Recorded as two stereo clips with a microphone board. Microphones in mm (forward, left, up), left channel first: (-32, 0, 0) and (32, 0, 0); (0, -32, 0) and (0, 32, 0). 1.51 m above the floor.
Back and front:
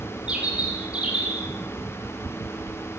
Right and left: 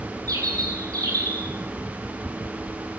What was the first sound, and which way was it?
A bird, 70° left.